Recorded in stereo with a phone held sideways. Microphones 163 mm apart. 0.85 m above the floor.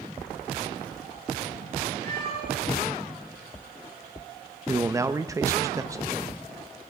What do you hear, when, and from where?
2.0 s a cat meowing: 80° right, 6 m
4.7 s a man speaking: 20° right (ahead or behind), 0.7 m